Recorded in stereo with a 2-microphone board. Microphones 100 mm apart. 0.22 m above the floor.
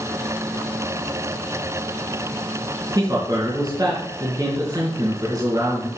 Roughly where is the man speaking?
Right.